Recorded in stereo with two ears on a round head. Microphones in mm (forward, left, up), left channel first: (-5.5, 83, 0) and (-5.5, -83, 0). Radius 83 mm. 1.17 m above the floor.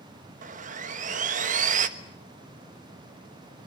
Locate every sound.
0.4 s sawing: 45° right (ahead or behind), 1.4 m